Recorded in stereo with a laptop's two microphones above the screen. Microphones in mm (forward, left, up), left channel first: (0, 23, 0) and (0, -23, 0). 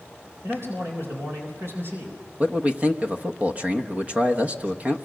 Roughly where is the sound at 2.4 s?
Right.